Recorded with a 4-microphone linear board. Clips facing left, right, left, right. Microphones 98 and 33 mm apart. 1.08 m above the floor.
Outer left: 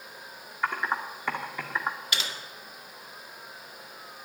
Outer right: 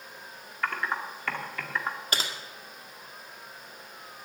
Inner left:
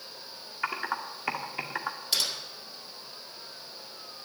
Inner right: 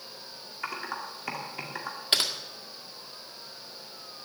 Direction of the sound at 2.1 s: 40° right (ahead or behind).